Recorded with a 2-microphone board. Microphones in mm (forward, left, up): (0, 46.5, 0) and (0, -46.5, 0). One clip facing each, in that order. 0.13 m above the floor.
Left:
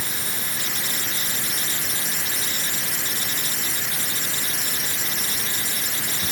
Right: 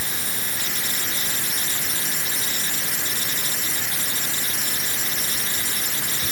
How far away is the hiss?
I don't hear a hiss.